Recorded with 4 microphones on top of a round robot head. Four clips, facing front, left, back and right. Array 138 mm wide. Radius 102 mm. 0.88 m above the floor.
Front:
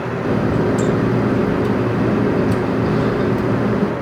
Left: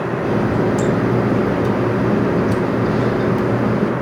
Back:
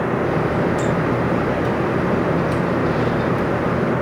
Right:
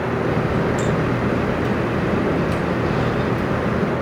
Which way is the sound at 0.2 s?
40° left.